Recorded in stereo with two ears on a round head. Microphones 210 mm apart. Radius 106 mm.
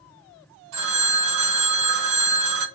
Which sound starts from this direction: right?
A phone ringing, at 0.7 s.